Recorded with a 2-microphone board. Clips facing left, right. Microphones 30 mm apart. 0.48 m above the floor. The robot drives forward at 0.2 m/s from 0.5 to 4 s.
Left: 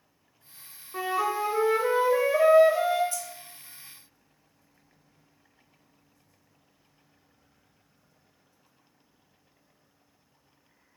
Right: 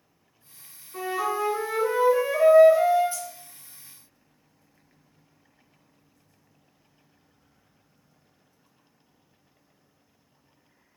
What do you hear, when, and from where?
0.9 s a flute: 25° left (ahead or behind), 0.6 m; by 3.0 s 15° left (ahead or behind), 1.0 m
3.1 s keys jangling: 35° right (ahead or behind), 0.7 m; by 3.2 s 30° right (ahead or behind), 0.7 m